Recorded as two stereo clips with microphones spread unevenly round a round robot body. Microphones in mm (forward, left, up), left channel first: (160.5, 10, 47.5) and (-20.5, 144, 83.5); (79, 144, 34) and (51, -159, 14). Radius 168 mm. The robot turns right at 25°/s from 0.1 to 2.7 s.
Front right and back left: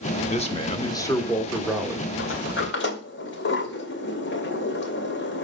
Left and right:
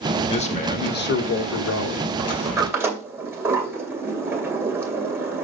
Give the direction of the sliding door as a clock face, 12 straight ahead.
1 o'clock.